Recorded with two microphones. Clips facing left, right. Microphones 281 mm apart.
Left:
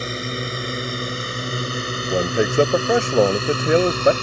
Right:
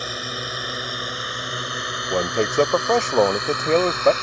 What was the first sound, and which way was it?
A drone, 25° left (ahead or behind).